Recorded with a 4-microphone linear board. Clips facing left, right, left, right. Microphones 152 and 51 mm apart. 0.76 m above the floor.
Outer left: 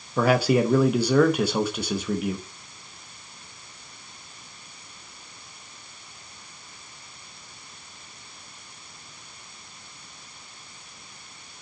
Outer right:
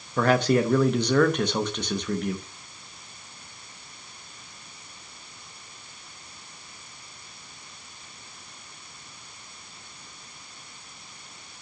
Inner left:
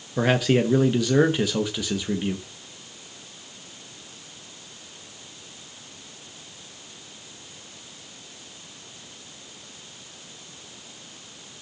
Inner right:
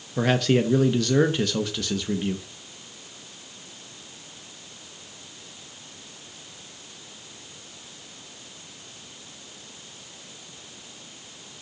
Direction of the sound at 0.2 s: 10° left (ahead or behind).